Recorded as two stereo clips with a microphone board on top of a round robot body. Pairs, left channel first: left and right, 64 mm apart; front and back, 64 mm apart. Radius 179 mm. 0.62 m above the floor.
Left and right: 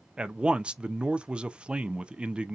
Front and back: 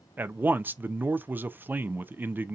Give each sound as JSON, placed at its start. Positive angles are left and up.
{"t": 0.2, "sound": "a man speaking", "azimuth_deg": -150, "distance_m": 0.6}